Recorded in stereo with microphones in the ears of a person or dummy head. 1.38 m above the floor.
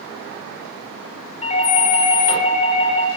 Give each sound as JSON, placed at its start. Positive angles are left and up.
{"t": 1.4, "sound": "a doorbell", "side_deg": 30, "distance_m": 7.0}